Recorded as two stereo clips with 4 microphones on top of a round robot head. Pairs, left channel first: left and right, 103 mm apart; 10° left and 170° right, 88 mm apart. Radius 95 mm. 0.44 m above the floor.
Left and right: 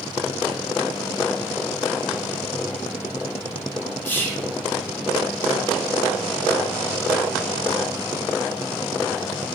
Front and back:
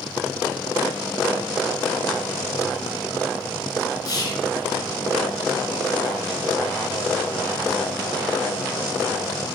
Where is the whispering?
25° left, 1.0 m.